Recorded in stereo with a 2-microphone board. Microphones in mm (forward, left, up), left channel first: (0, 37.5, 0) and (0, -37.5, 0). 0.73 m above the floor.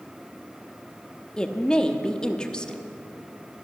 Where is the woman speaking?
15° left (ahead or behind), 1.1 m.